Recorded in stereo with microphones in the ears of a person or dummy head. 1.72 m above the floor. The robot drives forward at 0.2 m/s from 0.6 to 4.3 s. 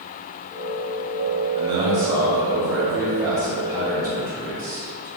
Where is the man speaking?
20° right (ahead or behind), 0.7 m; by 5.1 s 10° right (ahead or behind), 1.2 m.